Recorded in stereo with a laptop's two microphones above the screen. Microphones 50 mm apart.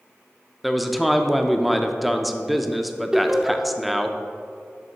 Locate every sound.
0.6 s a man speaking: centre (ahead or behind), 0.5 m
3.1 s laughter: 10° right (ahead or behind), 0.7 m